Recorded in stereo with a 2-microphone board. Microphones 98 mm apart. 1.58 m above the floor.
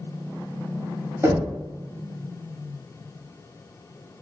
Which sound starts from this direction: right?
Knocking, at 1.2 s.